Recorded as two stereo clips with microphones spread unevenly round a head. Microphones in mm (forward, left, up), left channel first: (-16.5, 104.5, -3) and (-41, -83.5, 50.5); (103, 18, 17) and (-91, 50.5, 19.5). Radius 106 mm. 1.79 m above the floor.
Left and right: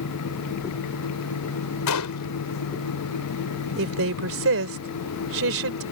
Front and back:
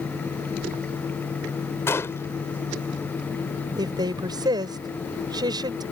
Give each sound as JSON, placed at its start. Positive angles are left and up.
{"t": 1.9, "sound": "a gunshot", "azimuth_deg": 70}
{"t": 3.8, "sound": "a woman speaking", "azimuth_deg": -115}